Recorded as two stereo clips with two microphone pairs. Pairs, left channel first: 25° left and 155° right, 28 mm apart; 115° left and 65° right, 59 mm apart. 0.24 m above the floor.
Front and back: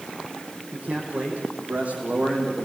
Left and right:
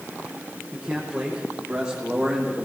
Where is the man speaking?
145° right, 10 m; by 2.7 s 140° right, 10.5 m.